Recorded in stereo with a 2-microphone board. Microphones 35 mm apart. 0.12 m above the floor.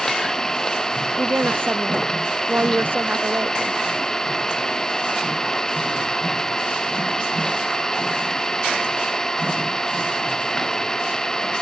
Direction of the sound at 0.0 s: 15° left (ahead or behind).